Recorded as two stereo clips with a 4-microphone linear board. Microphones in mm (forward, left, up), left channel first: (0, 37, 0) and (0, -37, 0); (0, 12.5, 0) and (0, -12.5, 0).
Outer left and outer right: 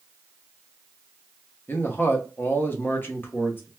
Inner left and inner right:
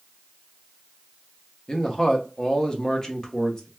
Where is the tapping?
I don't hear tapping.